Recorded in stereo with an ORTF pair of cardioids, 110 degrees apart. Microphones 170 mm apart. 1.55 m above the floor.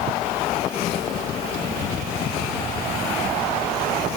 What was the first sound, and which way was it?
Only background noise.